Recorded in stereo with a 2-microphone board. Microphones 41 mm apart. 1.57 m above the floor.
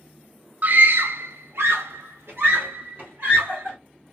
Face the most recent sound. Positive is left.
turn(degrees=-55)  # may be behind; listen again after turning